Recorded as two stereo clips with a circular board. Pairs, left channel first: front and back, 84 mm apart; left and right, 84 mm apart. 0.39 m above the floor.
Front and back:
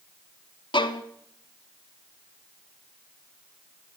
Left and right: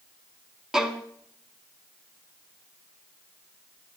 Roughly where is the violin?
Ahead.